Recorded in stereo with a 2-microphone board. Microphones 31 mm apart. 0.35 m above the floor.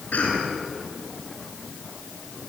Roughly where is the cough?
Left.